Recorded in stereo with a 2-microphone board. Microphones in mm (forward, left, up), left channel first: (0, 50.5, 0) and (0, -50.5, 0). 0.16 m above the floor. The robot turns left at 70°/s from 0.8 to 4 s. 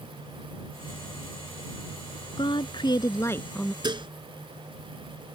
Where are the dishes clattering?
50° right (ahead or behind); by 4.1 s 55° right (ahead or behind).